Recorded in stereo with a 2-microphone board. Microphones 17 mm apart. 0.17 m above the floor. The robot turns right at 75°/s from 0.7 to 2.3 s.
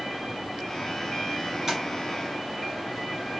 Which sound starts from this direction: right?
Tapping, at 1.7 s.